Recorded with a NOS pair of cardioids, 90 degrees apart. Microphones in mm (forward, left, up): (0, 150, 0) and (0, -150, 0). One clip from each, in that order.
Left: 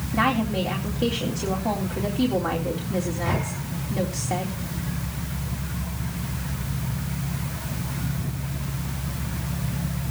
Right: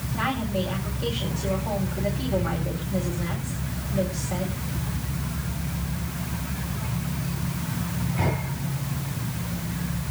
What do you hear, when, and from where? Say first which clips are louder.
0.1 s a woman speaking: left 4 dB; 70° left, 3.5 m